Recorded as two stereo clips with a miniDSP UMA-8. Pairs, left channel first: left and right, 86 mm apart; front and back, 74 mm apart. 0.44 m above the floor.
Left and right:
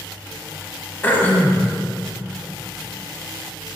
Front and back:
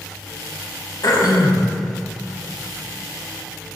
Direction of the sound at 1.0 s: 20° left.